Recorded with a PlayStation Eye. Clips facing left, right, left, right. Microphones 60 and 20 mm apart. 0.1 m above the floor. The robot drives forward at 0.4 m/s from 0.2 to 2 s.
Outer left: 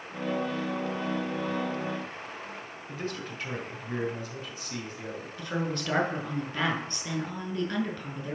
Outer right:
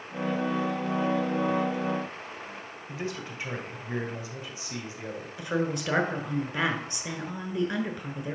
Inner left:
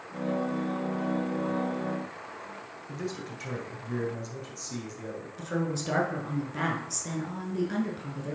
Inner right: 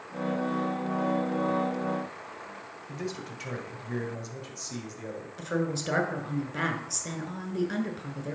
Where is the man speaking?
10° right (ahead or behind), 2.0 m.